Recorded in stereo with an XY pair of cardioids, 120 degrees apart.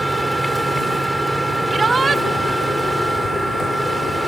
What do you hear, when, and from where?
0.0 s a machine running: straight ahead
1.7 s a shout: 25° right